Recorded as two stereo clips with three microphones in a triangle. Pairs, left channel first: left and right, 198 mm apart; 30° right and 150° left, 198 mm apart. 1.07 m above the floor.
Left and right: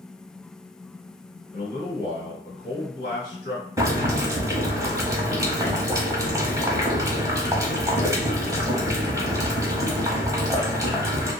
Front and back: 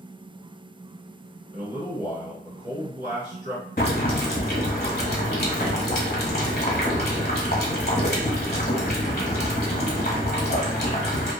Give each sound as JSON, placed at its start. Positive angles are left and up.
{"t": 1.5, "sound": "a man speaking", "azimuth_deg": 115, "distance_m": 1.4}
{"t": 3.8, "sound": "boiling", "azimuth_deg": -20, "distance_m": 1.2}